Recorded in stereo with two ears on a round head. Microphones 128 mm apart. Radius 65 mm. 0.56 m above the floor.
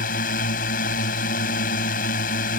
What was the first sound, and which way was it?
A drone, 65° left (ahead or behind).